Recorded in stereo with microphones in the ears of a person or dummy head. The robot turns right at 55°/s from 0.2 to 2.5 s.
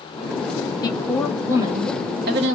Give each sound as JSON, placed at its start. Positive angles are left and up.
{"t": 0.8, "sound": "a woman speaking", "azimuth_deg": 160, "distance_m": 0.8}